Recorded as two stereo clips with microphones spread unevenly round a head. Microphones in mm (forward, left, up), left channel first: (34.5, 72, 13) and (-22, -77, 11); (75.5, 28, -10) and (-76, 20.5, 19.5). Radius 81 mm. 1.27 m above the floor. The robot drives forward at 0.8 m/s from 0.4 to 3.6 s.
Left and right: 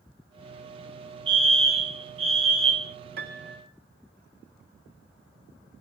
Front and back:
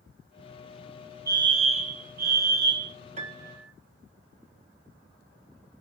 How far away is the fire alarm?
About 1.0 m.